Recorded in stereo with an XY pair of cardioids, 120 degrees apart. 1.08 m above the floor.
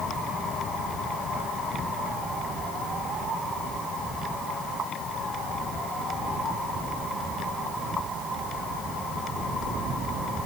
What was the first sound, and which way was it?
Only background noise.